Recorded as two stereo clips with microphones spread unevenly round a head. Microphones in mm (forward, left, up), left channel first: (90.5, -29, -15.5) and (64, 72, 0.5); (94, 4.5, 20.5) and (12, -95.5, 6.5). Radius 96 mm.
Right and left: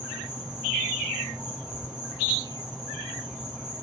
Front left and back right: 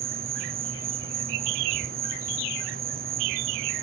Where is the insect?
170° right.